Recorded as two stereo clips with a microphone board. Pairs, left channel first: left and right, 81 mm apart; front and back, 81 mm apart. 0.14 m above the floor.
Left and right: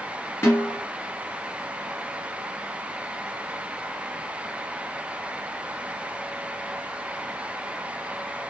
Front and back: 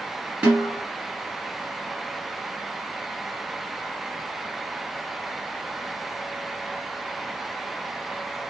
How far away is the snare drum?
About 1.7 m.